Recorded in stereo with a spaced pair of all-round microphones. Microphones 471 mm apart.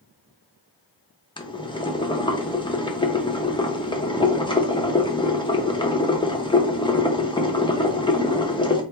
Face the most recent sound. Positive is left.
turn(degrees=10)  # may be behind; listen again after turning